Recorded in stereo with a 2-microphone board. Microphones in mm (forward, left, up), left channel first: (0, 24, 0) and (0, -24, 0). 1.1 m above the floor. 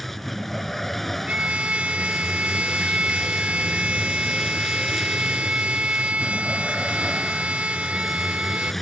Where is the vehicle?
Centre (ahead or behind).